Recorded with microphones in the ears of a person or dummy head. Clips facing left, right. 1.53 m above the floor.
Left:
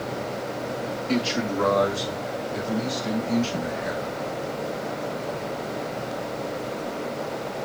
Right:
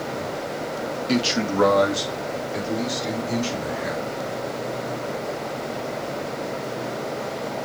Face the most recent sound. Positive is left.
turn(degrees=-70)  # may be behind; listen again after turning